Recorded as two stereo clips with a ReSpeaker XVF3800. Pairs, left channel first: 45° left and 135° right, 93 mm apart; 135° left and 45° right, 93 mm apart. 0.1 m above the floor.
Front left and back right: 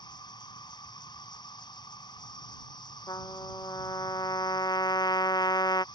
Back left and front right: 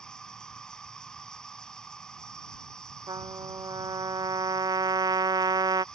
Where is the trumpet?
Straight ahead.